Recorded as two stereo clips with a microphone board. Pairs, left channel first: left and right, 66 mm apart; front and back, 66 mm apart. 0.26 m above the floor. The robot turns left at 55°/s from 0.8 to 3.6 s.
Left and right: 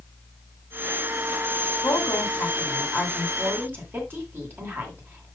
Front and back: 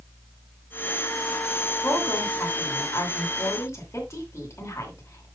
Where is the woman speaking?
60° left, 2.5 m; by 5.3 s 40° right, 2.5 m.